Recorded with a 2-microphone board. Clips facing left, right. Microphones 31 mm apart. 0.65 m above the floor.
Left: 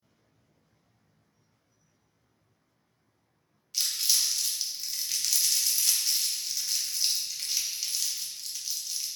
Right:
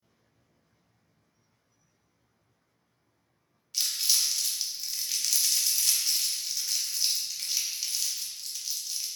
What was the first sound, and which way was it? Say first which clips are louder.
Crumpling: even; centre (ahead or behind).